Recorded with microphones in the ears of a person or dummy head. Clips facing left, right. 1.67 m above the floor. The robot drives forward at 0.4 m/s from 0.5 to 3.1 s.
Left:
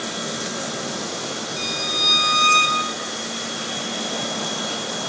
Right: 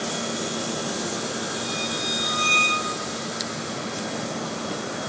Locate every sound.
1.6 s a violin: 60° left (ahead or behind), 1.2 m; by 2.8 s 85° left, 1.1 m